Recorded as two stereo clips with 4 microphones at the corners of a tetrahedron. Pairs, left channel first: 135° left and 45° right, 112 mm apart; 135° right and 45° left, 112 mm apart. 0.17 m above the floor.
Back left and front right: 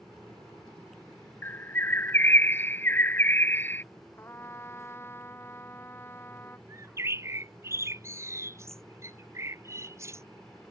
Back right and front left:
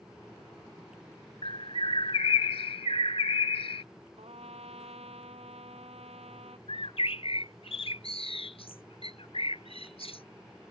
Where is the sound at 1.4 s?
160° right.